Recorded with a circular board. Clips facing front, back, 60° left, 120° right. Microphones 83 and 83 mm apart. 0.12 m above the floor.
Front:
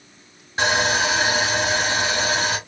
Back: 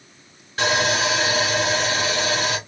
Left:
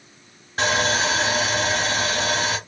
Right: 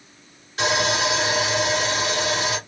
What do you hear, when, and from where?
0.6 s sawing: 50° left, 1.9 m